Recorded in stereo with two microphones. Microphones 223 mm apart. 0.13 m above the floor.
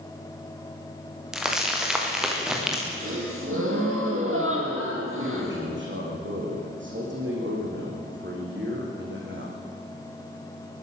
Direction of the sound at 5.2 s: 60° right (ahead or behind).